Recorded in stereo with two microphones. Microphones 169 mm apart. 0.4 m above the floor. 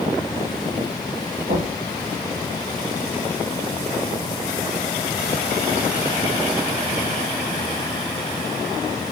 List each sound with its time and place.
1.5 s knocking: 65° right (ahead or behind), 2 m